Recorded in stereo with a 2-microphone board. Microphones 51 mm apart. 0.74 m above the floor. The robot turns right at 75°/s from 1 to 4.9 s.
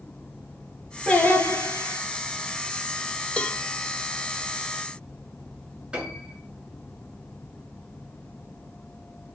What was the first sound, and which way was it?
Singing, 20° left.